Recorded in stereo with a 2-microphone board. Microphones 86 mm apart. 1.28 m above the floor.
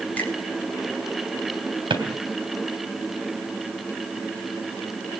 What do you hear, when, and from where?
0.2 s a finger snap: 20° left (ahead or behind), 4 m
1.9 s a drawer: 65° right (ahead or behind), 3 m